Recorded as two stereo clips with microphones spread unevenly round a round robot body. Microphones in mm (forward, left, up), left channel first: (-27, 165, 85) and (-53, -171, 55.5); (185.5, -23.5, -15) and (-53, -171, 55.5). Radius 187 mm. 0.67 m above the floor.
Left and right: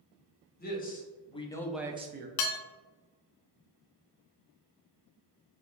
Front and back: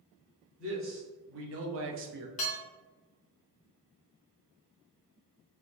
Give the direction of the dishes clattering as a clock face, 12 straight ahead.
9 o'clock.